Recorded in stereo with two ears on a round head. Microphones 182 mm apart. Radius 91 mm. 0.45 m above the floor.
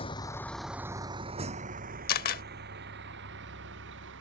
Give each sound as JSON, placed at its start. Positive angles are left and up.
{"t": 0.0, "sound": "a vehicle", "side_deg": 30}
{"t": 2.1, "sound": "a camera shutter", "side_deg": 50}